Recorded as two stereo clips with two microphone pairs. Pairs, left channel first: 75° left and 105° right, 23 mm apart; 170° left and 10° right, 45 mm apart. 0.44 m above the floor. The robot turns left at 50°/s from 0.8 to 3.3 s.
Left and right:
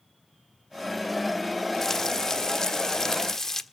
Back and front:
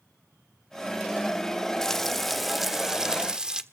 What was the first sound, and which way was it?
Frying, 115° left.